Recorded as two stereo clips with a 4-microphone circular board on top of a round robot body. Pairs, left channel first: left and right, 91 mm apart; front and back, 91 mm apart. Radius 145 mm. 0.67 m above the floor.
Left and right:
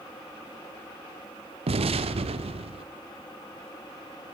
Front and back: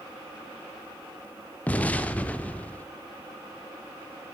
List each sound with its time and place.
1.7 s an explosion: 75° right, 0.6 m